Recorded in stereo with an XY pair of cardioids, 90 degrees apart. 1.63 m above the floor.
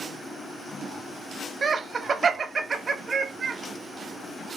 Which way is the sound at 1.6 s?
45° right.